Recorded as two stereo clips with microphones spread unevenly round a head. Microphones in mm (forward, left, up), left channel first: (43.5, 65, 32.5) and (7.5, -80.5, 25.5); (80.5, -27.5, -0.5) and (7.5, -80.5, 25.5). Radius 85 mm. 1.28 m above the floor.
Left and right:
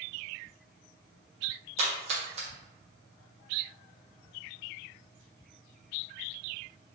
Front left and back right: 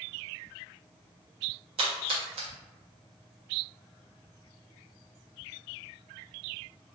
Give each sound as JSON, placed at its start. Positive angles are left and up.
{"t": 1.8, "sound": "a splash", "azimuth_deg": -160, "distance_m": 1.2}